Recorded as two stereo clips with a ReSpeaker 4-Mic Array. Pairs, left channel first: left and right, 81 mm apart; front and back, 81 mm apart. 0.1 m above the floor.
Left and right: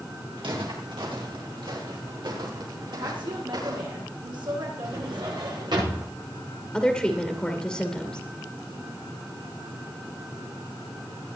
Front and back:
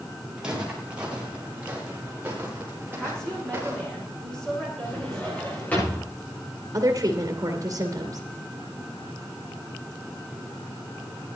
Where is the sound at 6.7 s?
170° left, 2 m.